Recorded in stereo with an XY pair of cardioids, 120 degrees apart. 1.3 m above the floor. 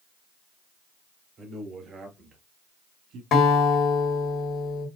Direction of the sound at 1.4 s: 45° right.